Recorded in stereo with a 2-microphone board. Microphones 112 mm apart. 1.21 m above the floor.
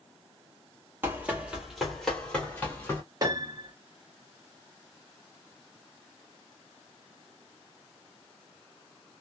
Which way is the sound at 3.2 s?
35° right (ahead or behind).